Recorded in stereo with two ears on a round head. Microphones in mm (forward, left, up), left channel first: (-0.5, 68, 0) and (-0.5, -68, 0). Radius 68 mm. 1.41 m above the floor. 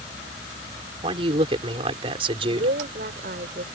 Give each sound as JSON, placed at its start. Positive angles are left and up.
{"t": 1.0, "sound": "a man speaking", "side_deg": -35}
{"t": 2.4, "sound": "a woman speaking", "side_deg": -60}